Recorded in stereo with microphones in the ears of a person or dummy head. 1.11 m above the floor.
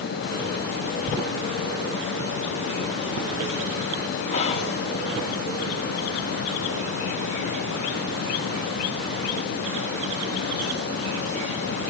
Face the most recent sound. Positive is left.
turn(degrees=35)  # may be behind; listen again after turning